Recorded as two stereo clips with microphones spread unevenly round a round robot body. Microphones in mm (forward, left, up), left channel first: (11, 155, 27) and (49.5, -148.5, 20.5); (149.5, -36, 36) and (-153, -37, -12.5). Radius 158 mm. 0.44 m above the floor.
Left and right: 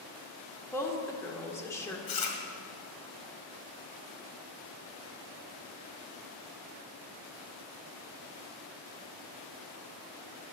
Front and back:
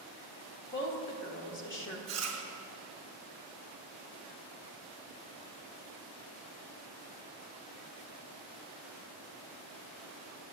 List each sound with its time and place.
0.7 s a woman speaking: 20° left, 1.5 m
2.1 s chewing: 110° left, 1.9 m